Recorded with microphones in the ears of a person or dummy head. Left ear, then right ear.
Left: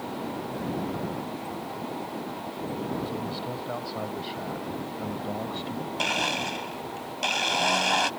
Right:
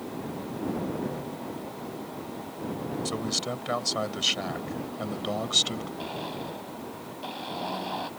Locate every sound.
3.0 s a man speaking: 65° right (ahead or behind); by 5.9 s 85° right
6.0 s a blender: 70° left (ahead or behind)